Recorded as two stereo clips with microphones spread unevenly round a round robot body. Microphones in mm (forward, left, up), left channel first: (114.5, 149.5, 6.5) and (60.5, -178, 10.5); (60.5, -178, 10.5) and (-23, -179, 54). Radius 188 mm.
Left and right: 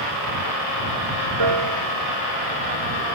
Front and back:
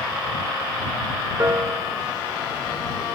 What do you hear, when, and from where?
1.4 s a piano: 125° right